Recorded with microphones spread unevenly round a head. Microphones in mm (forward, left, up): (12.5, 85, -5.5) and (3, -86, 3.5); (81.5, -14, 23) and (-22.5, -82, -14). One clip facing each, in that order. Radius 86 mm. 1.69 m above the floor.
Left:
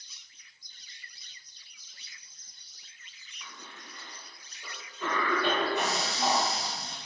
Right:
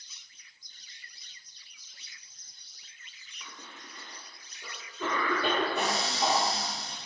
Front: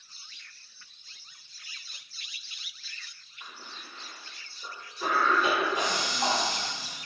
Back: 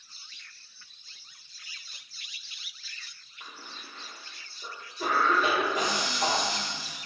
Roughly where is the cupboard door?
Behind right.